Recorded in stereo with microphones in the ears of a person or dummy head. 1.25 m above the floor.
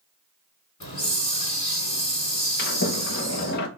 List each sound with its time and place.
0.8 s a hiss: 35° left (ahead or behind), 2.5 m
2.6 s a sliding door: 65° left (ahead or behind), 0.8 m